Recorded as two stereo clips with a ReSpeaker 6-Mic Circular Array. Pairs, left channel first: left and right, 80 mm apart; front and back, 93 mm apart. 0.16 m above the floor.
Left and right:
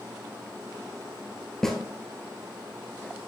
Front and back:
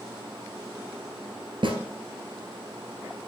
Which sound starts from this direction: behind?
A snare drum, at 1.6 s.